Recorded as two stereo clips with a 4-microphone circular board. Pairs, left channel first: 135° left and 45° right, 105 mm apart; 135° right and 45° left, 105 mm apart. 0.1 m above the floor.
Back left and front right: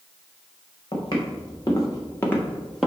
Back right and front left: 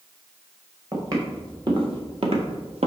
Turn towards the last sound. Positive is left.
turn(degrees=45)